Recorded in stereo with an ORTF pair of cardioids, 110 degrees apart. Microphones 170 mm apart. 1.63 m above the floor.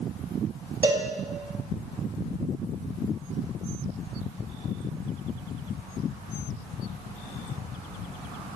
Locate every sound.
0.8 s a cowbell: 20° right, 2.5 m